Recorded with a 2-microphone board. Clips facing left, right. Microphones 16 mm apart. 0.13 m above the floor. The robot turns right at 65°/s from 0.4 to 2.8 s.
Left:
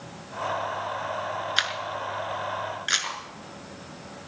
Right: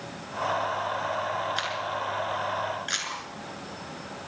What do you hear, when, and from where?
1.6 s a camera shutter: 35° left (ahead or behind), 1.7 m; by 3.1 s 25° left (ahead or behind), 1.7 m
3.0 s cutlery clinking: 15° left (ahead or behind), 8 m